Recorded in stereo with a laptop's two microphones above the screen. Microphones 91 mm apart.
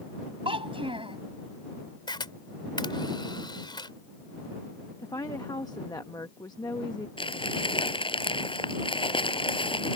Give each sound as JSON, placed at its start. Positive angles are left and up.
{"t": 0.5, "sound": "a child speaking", "side_deg": -85}
{"t": 2.1, "sound": "a camera shutter", "side_deg": 55}
{"t": 5.0, "sound": "a woman speaking", "side_deg": 45}
{"t": 7.2, "sound": "crumpling", "side_deg": 75}